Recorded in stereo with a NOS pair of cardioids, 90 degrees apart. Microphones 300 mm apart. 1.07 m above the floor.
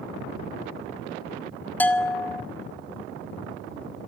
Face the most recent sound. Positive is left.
turn(degrees=5)